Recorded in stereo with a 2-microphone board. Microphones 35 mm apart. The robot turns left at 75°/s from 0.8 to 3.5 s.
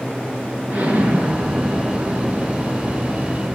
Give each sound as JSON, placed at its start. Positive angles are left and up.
{"t": 0.7, "sound": "an explosion", "azimuth_deg": -50, "distance_m": 3.0}